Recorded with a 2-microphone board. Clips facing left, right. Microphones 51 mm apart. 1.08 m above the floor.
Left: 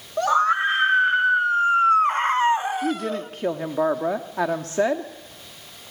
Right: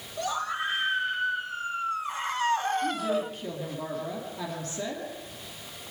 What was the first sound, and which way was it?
A scream, 60° left (ahead or behind).